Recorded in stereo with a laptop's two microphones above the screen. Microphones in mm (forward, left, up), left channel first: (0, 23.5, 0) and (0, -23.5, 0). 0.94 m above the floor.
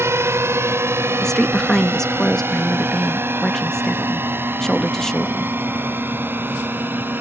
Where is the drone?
65° right (ahead or behind); by 7.2 s 45° right (ahead or behind).